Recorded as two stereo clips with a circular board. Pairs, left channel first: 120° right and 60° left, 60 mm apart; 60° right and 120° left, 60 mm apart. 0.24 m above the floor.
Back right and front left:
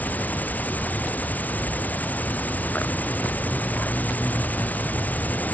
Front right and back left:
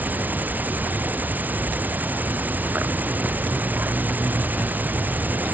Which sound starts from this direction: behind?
An insect, at 0.0 s.